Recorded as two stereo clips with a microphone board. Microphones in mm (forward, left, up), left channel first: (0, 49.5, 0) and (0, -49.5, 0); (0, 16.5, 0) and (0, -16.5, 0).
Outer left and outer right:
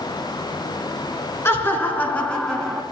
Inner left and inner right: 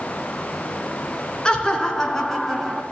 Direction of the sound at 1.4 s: 25° left (ahead or behind).